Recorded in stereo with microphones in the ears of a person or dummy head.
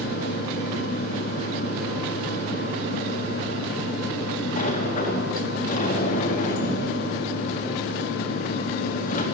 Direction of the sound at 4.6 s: 40° left (ahead or behind).